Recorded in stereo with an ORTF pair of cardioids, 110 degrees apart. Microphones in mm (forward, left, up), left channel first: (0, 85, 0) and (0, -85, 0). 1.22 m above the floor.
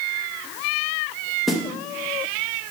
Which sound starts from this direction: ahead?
A snare drum, at 1.5 s.